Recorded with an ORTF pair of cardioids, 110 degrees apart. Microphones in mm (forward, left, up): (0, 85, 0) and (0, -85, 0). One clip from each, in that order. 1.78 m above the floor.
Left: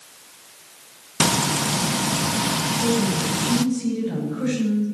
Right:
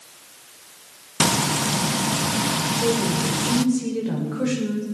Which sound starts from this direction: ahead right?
A woman speaking, at 2.6 s.